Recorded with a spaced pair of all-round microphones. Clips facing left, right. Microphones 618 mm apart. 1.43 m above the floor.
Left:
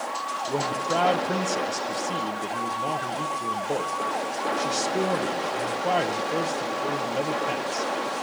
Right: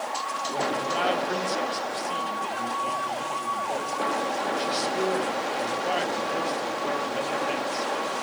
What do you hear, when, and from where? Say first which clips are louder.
0.5 s a man speaking: left 2 dB; 70° left (ahead or behind), 1.3 m